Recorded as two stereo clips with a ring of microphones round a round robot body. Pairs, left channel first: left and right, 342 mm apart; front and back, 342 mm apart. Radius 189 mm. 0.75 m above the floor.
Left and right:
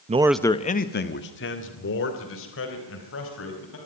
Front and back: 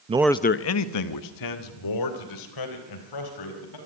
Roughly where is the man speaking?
Behind right.